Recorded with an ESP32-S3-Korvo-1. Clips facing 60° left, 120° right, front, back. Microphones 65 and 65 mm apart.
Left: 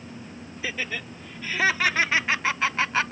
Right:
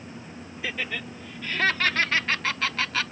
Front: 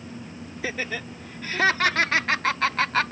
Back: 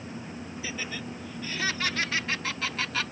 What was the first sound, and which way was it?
Laughter, 25° right.